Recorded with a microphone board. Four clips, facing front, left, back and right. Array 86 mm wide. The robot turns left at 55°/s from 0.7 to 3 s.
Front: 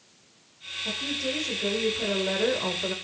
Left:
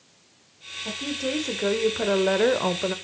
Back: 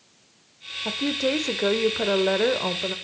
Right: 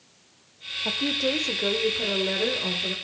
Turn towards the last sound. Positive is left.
turn(degrees=95)